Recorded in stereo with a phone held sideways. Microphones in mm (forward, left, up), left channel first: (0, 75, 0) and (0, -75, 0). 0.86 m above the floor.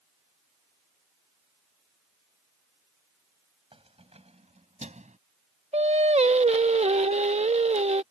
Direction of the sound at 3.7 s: 40° right (ahead or behind).